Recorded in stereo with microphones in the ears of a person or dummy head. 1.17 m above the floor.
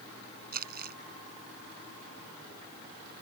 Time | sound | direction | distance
0.5 | crumpling | 55° right (ahead or behind) | ?